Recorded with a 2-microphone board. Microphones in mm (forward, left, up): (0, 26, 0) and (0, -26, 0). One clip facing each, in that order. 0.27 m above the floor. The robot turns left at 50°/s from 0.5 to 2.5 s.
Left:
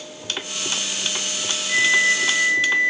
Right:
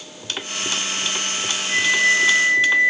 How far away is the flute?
About 2.5 m.